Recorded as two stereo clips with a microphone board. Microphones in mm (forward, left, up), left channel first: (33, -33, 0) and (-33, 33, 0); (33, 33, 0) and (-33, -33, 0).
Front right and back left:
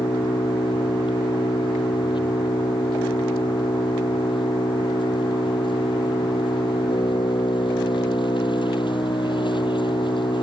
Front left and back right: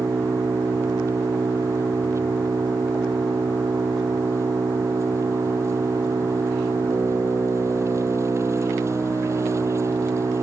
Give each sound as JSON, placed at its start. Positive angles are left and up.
{"t": 0.0, "sound": "an engine running", "azimuth_deg": -75}